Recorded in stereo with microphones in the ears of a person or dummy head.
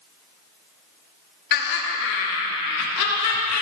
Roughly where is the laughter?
Left.